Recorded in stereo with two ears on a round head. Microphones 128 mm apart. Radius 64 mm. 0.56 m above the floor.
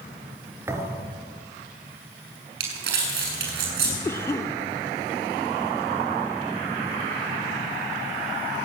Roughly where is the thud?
Centre.